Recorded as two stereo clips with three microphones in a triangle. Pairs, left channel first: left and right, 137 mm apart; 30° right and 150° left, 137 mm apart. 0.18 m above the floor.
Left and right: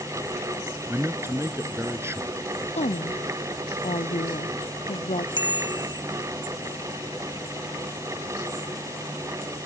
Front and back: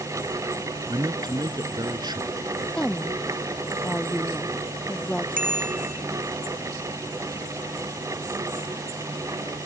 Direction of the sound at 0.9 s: 155° right.